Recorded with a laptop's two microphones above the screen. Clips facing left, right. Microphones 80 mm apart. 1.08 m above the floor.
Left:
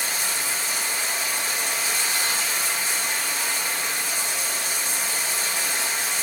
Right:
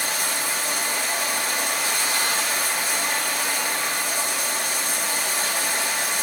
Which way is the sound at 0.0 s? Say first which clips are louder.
Right 2 dB; 55° right (ahead or behind).